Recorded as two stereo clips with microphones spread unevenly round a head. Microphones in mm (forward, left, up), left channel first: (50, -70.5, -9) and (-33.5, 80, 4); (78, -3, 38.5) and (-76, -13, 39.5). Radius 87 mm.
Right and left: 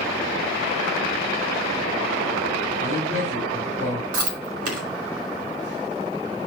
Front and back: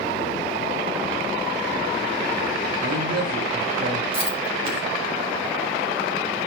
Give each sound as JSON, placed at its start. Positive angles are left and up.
{"t": 2.8, "sound": "a man speaking", "azimuth_deg": 150, "distance_m": 3.5}
{"t": 4.1, "sound": "chewing", "azimuth_deg": 130, "distance_m": 2.5}